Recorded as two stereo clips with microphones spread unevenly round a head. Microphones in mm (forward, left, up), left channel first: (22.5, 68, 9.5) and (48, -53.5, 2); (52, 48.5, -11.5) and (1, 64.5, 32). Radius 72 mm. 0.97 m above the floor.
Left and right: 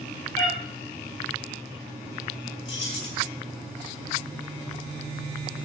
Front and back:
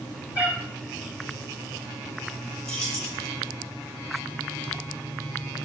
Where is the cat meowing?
115° left, 4 m.